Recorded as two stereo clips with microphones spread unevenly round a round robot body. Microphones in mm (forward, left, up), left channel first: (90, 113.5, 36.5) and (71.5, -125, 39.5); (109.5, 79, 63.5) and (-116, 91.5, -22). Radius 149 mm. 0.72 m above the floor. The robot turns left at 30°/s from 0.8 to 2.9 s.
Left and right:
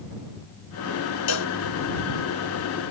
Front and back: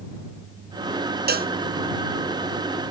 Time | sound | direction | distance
1.3 | a cowbell | 125° left | ?